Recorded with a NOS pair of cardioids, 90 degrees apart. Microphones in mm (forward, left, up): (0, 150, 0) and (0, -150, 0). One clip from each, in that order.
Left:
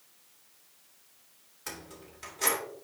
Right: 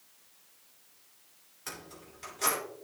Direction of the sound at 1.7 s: 15° left.